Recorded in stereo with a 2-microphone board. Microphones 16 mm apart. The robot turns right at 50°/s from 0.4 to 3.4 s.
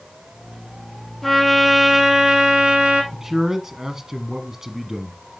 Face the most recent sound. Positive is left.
turn(degrees=-25)  # may be behind; listen again after turning